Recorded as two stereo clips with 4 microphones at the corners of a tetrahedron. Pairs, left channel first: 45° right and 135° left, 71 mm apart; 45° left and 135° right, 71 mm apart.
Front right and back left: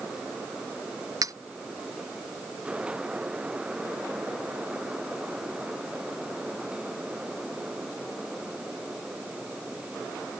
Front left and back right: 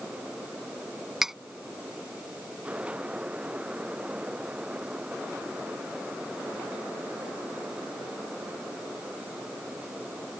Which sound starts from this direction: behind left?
Cutlery clinking, at 1.2 s.